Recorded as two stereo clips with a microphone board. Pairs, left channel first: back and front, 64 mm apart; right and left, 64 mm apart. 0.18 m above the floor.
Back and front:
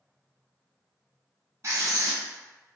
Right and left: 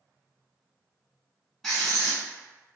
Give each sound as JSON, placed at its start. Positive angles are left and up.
{"t": 1.6, "sound": "writing", "azimuth_deg": -5, "distance_m": 1.0}